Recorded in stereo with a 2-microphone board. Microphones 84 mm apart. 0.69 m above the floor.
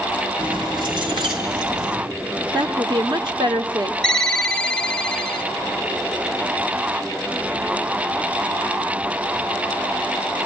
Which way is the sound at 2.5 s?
60° right (ahead or behind).